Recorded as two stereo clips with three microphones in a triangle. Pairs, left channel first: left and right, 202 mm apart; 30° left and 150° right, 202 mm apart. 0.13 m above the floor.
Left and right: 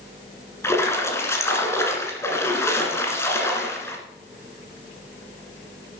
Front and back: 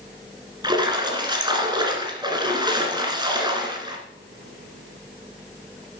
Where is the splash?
160° left, 1.7 m.